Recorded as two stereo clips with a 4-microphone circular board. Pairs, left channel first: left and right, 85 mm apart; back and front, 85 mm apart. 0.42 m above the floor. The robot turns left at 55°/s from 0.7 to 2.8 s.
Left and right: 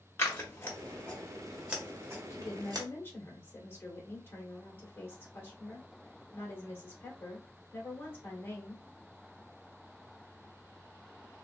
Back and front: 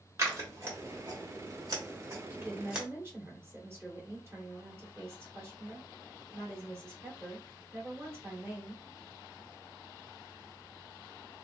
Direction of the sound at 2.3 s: 70° left.